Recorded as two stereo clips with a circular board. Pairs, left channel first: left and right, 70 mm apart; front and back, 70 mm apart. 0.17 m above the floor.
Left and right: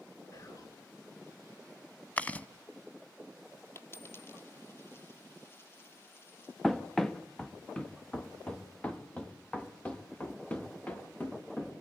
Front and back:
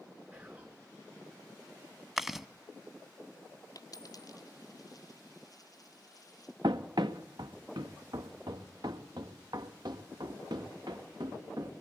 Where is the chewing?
100° left, 0.8 m.